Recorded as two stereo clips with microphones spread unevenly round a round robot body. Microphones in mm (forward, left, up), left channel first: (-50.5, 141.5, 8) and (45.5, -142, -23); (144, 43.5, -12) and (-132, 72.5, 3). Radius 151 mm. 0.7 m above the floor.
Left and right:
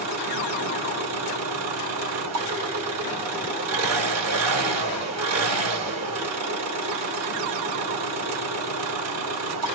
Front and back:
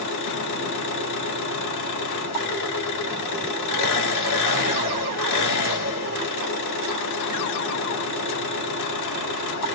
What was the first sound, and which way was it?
An engine running, 35° right.